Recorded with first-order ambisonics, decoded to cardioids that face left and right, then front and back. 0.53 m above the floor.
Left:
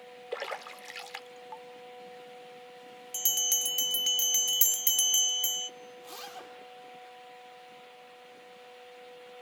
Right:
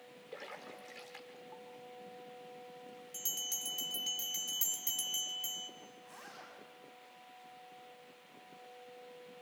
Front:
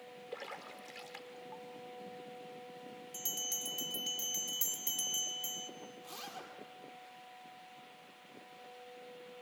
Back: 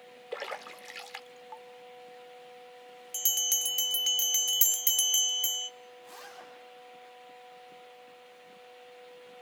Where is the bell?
135° left, 0.8 m.